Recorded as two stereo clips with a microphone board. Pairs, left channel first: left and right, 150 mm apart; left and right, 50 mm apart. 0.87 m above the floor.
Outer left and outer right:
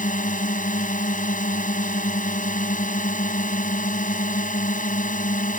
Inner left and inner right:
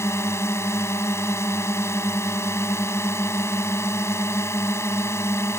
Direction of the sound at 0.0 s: 60° left (ahead or behind).